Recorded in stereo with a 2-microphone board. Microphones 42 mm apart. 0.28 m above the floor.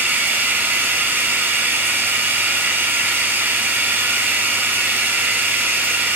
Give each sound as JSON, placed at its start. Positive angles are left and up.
{"t": 0.0, "sound": "running water", "side_deg": -55, "distance_m": 1.8}